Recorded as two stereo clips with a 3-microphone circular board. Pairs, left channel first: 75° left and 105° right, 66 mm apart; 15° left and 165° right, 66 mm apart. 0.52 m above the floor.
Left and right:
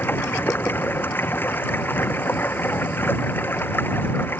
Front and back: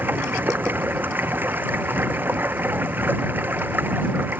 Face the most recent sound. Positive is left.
turn(degrees=135)